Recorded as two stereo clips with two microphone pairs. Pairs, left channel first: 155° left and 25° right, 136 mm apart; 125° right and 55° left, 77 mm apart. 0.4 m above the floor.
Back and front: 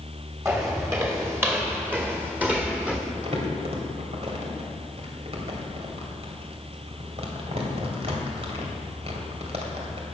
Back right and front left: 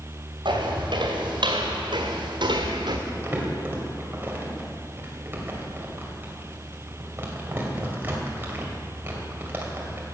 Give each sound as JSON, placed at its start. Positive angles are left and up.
{"t": 0.5, "sound": "footsteps", "azimuth_deg": 50, "distance_m": 3.0}
{"t": 3.1, "sound": "crumpling", "azimuth_deg": 0, "distance_m": 2.5}